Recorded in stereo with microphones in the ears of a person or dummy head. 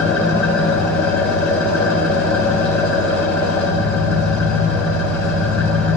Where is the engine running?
5° left (ahead or behind), 1.7 m.